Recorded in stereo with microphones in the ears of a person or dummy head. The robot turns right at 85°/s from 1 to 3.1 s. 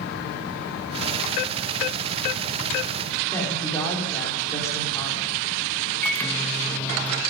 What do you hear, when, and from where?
3.3 s a woman speaking: 15° left (ahead or behind), 5 m
6.0 s a microwave: 10° left (ahead or behind), 2 m